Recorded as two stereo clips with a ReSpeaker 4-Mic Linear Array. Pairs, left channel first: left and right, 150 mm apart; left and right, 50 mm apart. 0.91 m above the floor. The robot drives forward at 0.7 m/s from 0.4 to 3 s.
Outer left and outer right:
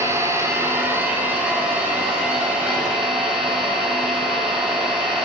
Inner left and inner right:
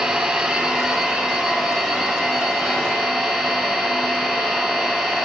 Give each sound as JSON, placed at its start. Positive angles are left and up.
{"t": 0.0, "sound": "an engine running", "side_deg": -20, "distance_m": 1.1}